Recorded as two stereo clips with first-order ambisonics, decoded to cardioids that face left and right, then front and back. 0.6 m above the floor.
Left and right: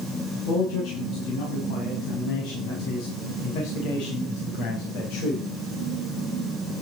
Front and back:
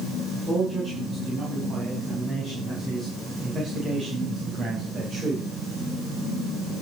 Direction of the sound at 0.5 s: 105° left.